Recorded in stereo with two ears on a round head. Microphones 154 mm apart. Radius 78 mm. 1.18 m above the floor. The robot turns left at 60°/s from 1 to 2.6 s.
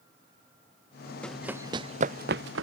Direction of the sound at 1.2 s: 5° left (ahead or behind).